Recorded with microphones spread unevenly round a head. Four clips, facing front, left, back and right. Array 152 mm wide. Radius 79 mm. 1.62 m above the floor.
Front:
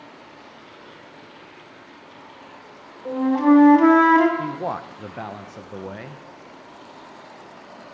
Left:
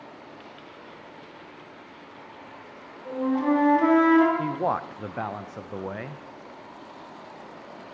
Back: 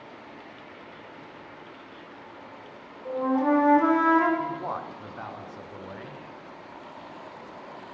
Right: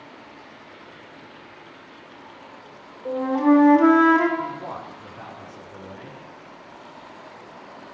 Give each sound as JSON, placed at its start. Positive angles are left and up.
{"t": 3.0, "sound": "a flute", "azimuth_deg": -40, "distance_m": 1.7}
{"t": 4.4, "sound": "a man speaking", "azimuth_deg": 50, "distance_m": 0.5}